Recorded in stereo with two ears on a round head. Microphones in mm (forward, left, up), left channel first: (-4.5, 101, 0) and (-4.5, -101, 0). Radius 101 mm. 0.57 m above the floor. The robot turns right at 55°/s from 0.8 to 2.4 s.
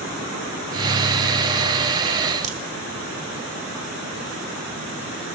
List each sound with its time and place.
2.4 s a crack: 35° right (ahead or behind), 1.7 m